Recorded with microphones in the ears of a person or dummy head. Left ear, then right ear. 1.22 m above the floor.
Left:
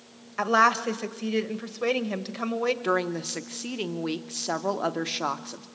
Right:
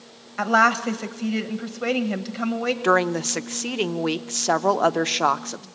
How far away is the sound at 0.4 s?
About 1.3 m.